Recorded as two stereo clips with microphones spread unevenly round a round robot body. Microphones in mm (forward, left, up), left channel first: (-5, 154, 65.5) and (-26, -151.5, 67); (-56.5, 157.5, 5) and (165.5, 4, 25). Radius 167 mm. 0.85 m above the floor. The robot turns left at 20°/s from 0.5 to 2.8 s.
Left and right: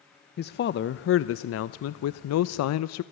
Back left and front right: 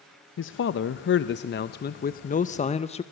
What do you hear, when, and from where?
0.4 s a man speaking: 135° left, 0.5 m; by 3.0 s 90° left, 0.5 m